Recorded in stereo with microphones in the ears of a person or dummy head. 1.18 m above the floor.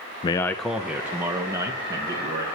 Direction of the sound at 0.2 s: 25° left (ahead or behind).